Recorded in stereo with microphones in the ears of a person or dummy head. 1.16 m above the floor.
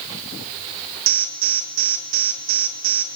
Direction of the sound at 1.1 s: 70° right (ahead or behind).